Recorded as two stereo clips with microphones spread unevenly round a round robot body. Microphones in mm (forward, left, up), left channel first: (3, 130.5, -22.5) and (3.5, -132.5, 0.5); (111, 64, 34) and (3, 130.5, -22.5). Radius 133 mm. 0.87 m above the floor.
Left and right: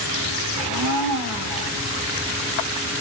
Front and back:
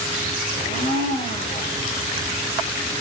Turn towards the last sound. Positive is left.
turn(degrees=-95)